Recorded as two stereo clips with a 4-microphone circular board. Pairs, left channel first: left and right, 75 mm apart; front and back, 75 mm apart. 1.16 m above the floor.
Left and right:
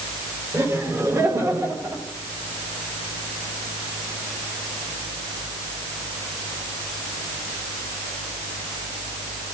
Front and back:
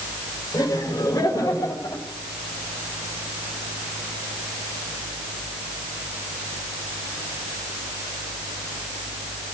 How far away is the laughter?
About 4 m.